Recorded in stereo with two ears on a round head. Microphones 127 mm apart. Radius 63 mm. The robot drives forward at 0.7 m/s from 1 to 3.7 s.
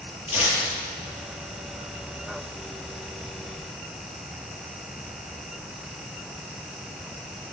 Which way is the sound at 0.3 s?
45° left (ahead or behind).